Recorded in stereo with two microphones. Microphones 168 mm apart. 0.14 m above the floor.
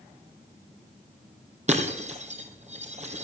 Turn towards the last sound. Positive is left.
turn(degrees=-45)  # may be behind; listen again after turning